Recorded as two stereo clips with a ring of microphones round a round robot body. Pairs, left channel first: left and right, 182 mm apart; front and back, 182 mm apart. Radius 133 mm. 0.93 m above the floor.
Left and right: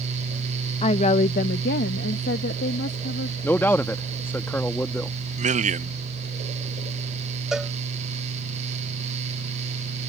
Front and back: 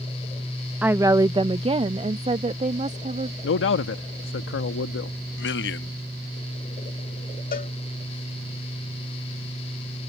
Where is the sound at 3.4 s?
10° left.